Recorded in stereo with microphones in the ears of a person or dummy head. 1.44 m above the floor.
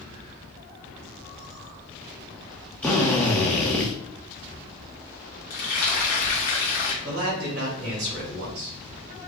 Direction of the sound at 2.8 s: 5° left (ahead or behind).